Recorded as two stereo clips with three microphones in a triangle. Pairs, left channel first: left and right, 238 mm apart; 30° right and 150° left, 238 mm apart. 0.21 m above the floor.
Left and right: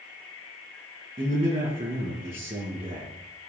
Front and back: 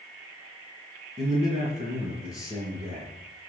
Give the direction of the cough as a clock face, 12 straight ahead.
No cough in this recording.